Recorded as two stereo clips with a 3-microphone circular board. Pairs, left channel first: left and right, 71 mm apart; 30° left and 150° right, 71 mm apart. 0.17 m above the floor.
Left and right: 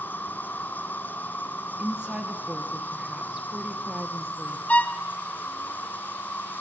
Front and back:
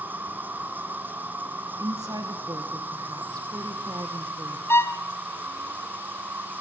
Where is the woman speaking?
165° right, 3 m.